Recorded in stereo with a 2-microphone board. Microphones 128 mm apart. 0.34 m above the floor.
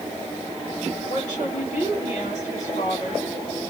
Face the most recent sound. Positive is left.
turn(degrees=75)  # may be behind; listen again after turning